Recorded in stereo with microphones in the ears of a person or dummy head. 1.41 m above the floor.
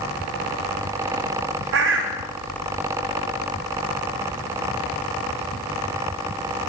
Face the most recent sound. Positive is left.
turn(degrees=-65)  # may be behind; listen again after turning